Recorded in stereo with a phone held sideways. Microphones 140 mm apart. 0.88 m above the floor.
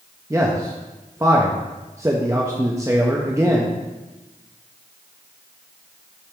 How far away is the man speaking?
About 0.6 m.